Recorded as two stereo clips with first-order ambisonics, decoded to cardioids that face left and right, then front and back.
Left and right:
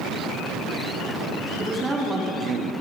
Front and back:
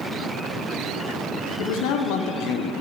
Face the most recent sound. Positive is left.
turn(degrees=-40)